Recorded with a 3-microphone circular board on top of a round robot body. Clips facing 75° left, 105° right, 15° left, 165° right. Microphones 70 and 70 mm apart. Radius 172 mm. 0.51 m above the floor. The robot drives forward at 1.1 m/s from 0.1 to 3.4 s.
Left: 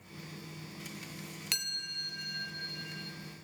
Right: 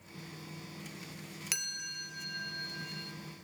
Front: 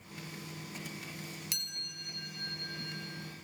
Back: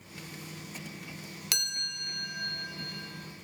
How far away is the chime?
About 0.7 m.